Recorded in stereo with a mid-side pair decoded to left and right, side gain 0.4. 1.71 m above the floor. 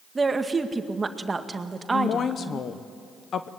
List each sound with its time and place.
0.1 s a woman speaking: 30° right, 1.9 m
1.9 s a woman speaking: 60° left, 1.0 m